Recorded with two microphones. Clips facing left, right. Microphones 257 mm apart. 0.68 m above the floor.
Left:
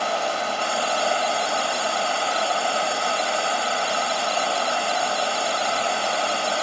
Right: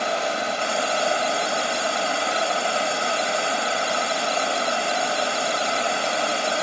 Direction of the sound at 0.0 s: 20° right (ahead or behind).